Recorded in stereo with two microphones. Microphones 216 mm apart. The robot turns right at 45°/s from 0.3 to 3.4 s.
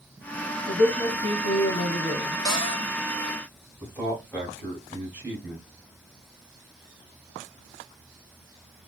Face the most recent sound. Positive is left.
turn(degrees=10)  # may be behind; listen again after turning